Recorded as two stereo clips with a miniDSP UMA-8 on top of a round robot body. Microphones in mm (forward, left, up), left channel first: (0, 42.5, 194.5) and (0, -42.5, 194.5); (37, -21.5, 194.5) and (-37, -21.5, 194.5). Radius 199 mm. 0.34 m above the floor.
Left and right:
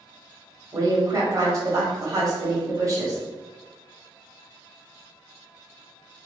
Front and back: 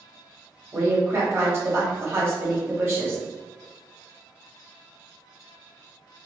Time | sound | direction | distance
0.7 | a woman speaking | 130° right | 1.5 m